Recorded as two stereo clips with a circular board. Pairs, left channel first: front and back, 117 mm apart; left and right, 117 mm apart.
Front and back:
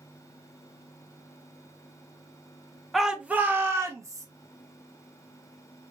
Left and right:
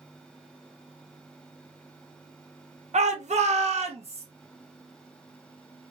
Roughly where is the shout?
Right.